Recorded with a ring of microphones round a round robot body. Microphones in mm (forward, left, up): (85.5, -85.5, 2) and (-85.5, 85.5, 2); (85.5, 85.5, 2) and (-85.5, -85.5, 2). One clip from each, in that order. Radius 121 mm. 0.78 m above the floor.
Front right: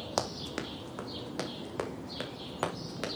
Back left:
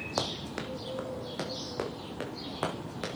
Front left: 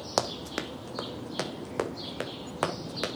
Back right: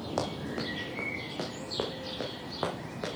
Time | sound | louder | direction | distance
0.2 | running footsteps | even, front left 5 dB | 25° left | 1.5 m